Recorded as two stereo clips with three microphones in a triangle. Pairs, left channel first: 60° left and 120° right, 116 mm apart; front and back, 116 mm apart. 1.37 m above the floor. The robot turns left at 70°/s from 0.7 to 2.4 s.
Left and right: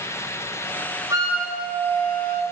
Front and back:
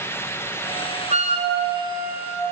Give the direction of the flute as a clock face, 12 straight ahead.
6 o'clock.